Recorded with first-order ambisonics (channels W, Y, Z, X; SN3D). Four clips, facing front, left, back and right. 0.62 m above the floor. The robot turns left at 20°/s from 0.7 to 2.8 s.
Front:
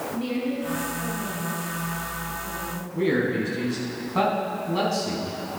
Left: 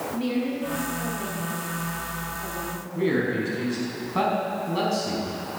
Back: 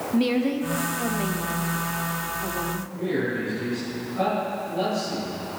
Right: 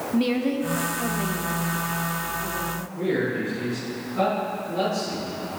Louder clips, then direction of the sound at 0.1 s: Right 5 dB, back 7 dB; 145° right.